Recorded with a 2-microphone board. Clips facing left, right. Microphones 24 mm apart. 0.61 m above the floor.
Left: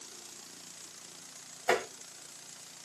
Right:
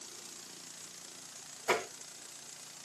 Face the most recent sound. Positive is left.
turn(degrees=25)  # may be behind; listen again after turning